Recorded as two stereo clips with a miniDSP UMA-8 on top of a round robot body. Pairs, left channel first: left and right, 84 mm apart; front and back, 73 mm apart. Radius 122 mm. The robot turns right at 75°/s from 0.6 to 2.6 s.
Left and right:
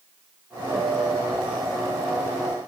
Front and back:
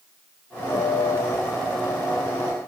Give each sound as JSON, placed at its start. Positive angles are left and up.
{"t": 0.7, "sound": "a piano", "azimuth_deg": 0, "distance_m": 0.9}